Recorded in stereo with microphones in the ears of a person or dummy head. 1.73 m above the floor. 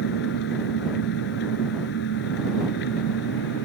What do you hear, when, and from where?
0.0 s an engine running: 60° left (ahead or behind)